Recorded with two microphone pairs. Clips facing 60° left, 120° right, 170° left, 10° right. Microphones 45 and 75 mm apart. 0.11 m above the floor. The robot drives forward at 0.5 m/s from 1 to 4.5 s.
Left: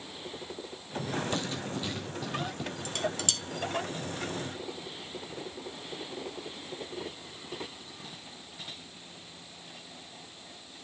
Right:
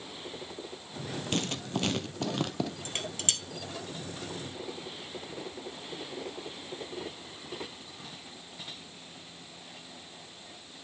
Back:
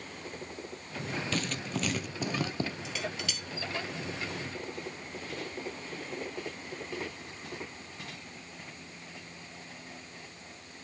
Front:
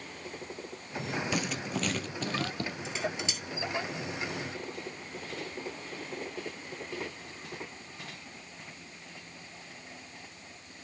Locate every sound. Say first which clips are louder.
1.3 s writing: right 1 dB, front 1 dB; 90° right, 1.1 m; by 2.7 s 125° right, 1.2 m
2.9 s dishes clattering: left 3 dB, front 2 dB; 65° right, 1.5 m; by 3.4 s 80° right, 1.5 m